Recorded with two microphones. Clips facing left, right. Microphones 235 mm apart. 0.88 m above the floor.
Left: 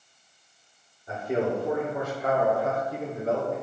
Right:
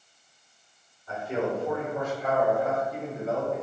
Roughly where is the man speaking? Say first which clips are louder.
Left 2 dB; left.